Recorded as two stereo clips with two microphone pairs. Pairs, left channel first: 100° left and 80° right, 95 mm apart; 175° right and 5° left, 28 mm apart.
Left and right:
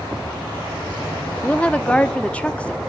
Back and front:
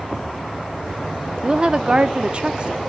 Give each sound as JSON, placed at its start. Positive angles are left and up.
{"t": 1.4, "sound": "a woman speaking", "azimuth_deg": 30, "distance_m": 0.7}